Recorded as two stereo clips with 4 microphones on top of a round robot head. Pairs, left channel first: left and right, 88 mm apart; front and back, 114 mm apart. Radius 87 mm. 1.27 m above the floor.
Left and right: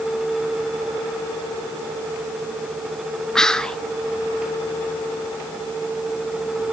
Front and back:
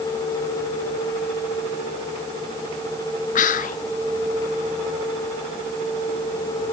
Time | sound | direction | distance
3.4 | whispering | 5° left | 0.7 m